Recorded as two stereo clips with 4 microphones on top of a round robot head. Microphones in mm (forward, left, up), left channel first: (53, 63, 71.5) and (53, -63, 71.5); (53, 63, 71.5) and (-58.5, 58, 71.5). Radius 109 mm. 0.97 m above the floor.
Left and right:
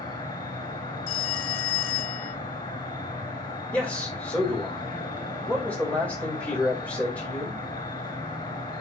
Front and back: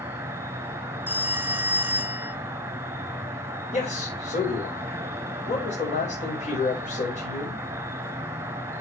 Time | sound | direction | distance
0.0 | an insect | 140° left | 1.0 m
1.1 | a phone ringing | 110° left | 1.0 m
3.7 | a man speaking | 10° left | 4.5 m